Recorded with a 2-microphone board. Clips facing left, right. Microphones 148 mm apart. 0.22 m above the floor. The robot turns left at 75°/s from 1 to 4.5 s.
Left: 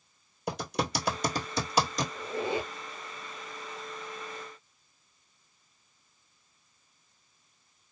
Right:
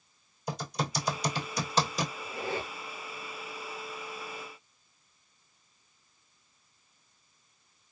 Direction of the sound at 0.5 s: 70° left (ahead or behind).